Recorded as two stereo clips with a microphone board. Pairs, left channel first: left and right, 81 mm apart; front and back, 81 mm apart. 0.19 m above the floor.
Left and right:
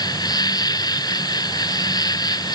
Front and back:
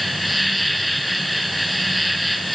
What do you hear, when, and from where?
0.0 s an insect: 90° left